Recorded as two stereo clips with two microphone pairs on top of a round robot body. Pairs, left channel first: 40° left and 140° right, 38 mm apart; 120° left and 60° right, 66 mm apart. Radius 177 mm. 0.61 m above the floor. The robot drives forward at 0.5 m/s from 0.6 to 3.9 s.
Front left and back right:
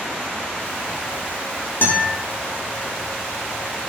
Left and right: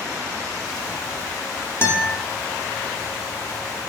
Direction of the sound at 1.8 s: 70° left.